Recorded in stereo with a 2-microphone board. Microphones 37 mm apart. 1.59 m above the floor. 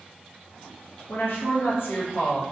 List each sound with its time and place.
1.1 s a woman speaking: 70° left (ahead or behind), 0.6 m